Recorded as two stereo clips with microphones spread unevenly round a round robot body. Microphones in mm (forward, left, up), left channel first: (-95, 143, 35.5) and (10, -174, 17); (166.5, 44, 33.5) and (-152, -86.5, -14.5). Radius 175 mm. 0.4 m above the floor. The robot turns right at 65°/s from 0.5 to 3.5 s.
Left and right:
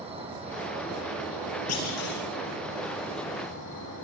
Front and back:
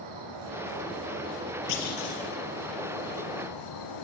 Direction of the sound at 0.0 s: 145° right.